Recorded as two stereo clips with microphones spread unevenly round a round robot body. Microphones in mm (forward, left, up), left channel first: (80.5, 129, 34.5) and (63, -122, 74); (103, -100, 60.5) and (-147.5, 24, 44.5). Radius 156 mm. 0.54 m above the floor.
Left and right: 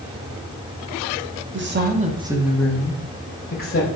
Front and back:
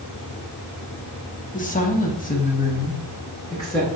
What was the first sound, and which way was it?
A woman speaking, 75° right.